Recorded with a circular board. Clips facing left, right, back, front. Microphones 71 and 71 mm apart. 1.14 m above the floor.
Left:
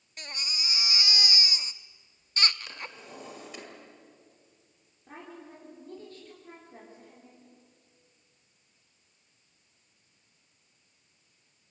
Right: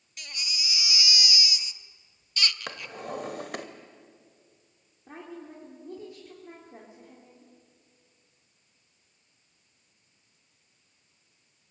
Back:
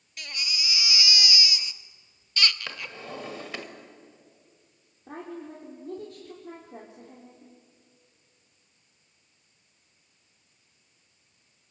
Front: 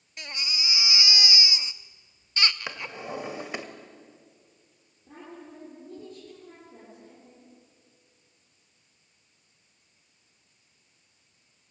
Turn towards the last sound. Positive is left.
turn(degrees=-170)